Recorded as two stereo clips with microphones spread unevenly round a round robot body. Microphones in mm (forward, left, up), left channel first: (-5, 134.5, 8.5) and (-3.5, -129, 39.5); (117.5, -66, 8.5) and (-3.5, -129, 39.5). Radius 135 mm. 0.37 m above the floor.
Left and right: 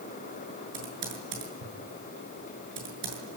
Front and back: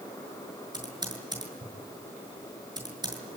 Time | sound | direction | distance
0.7 | typing on a keyboard | 90° right | 7.5 m